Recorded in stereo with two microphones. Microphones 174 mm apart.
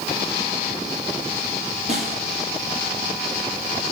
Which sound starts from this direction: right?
A snare drum, at 1.9 s.